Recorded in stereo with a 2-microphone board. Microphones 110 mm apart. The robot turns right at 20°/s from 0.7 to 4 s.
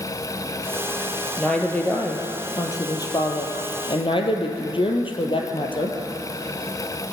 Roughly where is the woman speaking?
Ahead.